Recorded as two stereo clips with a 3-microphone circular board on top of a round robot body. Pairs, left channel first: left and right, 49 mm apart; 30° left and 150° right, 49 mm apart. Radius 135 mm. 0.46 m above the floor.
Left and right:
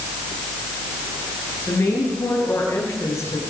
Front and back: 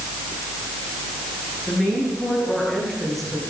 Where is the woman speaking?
120° left, 9.5 m.